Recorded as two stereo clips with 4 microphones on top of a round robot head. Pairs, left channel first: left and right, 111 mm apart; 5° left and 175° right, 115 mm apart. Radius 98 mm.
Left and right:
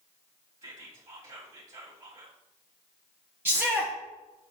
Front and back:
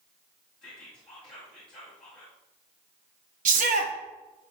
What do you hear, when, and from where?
0.6 s whispering: 75° right, 3 m
3.5 s a shout: 165° right, 1.4 m